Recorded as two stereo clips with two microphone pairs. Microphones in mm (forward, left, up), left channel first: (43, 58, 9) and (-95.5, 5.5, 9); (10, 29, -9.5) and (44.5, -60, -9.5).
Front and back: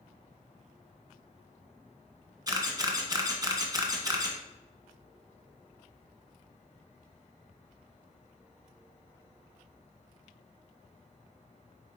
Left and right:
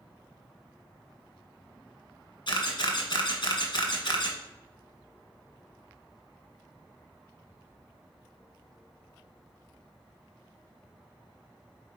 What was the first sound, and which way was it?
A camera shutter, 140° left.